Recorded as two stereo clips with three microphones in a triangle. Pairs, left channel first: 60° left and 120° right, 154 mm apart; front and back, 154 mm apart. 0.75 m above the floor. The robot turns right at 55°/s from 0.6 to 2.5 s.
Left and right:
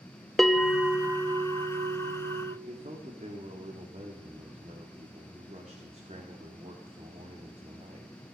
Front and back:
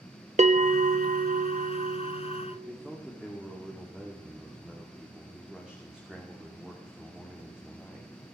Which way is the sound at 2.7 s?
95° right.